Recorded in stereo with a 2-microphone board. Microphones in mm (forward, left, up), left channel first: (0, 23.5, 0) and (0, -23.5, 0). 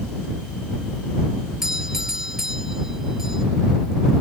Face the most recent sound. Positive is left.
turn(degrees=-10)  # may be behind; listen again after turning